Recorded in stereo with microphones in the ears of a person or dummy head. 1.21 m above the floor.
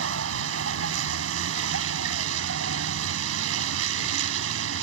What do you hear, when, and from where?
0.0 s a vehicle: 90° right